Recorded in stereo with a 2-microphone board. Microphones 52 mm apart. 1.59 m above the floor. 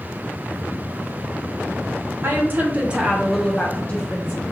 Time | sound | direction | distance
2.2 | a woman speaking | 45° right (ahead or behind) | 0.8 m